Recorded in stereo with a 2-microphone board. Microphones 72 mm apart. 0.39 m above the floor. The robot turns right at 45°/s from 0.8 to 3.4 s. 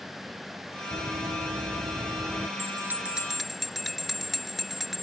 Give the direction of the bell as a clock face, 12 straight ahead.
1 o'clock.